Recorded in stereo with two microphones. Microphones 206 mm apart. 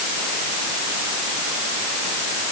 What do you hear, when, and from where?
Only background noise.